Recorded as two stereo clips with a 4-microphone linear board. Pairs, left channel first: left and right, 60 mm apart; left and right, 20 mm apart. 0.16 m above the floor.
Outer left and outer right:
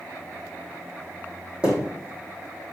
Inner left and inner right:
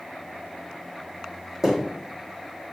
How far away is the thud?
About 3 m.